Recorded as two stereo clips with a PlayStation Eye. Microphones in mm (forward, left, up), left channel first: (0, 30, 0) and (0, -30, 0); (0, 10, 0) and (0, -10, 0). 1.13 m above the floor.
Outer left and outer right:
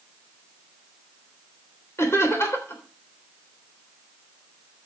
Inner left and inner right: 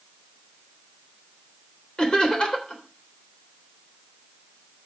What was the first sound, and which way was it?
Laughter, 45° left (ahead or behind).